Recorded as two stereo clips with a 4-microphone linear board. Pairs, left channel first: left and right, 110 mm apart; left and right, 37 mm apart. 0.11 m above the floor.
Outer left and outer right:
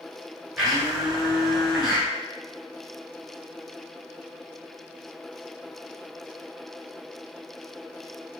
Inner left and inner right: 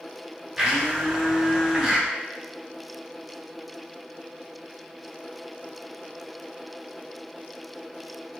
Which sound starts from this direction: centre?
A blender, at 0.6 s.